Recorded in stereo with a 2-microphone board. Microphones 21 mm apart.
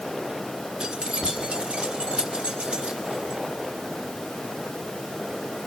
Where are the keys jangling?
55° right (ahead or behind), 1.8 m; by 3.4 s 80° right, 4 m.